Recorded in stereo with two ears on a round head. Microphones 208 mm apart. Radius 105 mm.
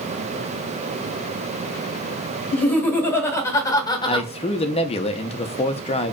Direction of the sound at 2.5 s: 10° left (ahead or behind).